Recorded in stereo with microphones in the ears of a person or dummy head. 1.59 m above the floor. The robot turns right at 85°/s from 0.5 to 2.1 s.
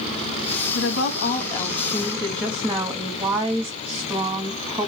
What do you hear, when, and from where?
0.8 s a woman speaking: 80° left, 1.0 m; by 4.9 s 165° right, 1.0 m